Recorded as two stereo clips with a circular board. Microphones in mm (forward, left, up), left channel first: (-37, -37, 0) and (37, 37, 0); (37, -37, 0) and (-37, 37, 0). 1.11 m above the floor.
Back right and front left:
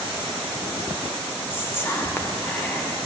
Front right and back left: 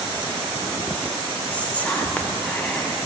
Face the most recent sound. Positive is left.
turn(degrees=-100)